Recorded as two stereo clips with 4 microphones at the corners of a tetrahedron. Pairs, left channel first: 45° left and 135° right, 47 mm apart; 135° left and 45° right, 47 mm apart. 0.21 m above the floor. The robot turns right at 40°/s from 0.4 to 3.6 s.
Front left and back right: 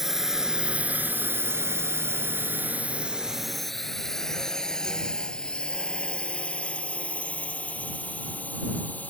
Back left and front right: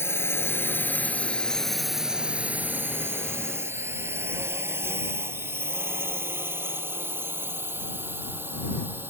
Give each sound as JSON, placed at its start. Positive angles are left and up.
{"t": 0.0, "sound": "a drone", "azimuth_deg": 145}